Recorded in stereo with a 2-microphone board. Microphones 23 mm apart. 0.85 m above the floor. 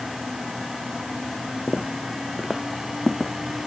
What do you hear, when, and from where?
1.7 s footsteps: 40° right (ahead or behind); by 3.3 s 5° right (ahead or behind)